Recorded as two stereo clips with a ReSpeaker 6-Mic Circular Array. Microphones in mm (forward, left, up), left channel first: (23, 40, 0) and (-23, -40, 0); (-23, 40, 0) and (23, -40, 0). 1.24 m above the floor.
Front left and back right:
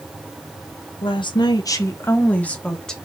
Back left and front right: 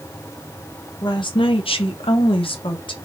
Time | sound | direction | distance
1.0 | a woman speaking | 80° left | 0.7 m